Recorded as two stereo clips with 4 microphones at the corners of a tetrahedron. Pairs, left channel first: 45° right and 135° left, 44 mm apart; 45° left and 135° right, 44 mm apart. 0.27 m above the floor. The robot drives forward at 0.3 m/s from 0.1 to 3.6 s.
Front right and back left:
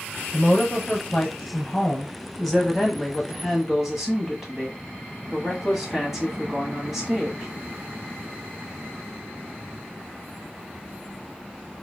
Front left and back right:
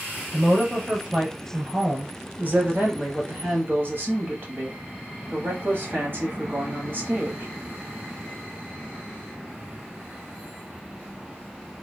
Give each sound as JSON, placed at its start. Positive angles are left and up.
{"t": 0.3, "sound": "a woman speaking", "azimuth_deg": -80, "distance_m": 1.1}